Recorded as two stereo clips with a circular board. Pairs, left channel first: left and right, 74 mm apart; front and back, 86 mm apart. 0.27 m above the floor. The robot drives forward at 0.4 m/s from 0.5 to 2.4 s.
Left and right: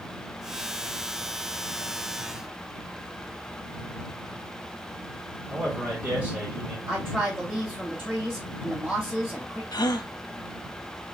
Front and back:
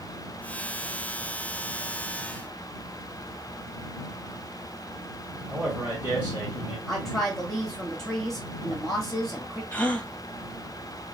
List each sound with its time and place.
5.5 s a man speaking: 135° right, 1.5 m
6.9 s a woman speaking: 85° right, 1.4 m
9.7 s a gasp: 70° left, 0.5 m